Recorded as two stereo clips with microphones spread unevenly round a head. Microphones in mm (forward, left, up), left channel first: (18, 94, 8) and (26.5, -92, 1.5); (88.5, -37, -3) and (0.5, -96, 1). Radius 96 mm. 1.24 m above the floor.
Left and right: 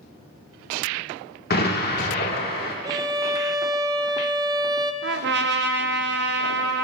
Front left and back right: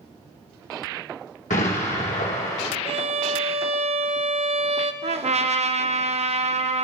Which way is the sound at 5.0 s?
125° right.